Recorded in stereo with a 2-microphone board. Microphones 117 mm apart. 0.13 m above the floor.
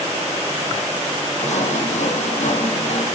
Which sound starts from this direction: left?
Sawing, at 1.4 s.